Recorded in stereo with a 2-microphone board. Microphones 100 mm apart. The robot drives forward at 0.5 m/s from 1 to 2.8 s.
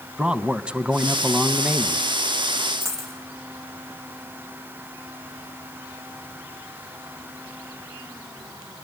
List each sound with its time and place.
0.2 s a man speaking: 10° right (ahead or behind), 1.1 m
2.8 s a dropped coin: 25° right (ahead or behind), 3.5 m